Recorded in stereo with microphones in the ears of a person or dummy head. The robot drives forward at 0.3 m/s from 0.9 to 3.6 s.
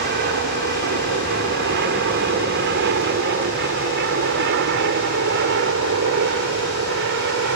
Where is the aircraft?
50° right (ahead or behind); by 7.6 s 60° right (ahead or behind).